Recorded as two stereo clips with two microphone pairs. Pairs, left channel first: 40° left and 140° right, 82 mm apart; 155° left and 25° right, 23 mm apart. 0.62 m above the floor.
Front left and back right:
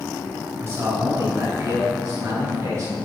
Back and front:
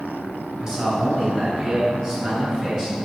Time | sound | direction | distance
0.6 | a man speaking | 85° right | 3.5 m